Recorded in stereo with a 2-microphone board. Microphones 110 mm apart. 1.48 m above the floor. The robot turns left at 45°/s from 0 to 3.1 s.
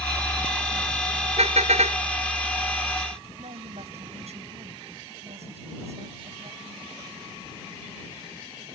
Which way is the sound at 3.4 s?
75° right (ahead or behind).